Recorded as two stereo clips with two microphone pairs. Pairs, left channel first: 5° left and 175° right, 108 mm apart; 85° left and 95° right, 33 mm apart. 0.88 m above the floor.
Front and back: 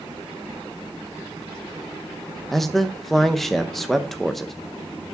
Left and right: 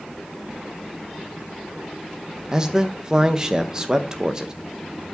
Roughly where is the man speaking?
Right.